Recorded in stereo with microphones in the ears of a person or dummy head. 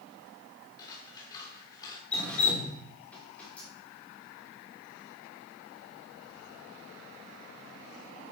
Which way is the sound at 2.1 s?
5° left (ahead or behind).